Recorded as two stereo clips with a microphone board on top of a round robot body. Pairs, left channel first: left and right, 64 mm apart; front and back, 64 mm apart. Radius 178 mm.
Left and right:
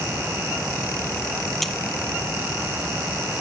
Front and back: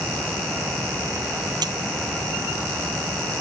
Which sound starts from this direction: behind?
A dropped coin, at 1.6 s.